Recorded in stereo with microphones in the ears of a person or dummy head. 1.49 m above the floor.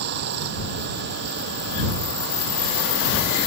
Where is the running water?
50° right (ahead or behind).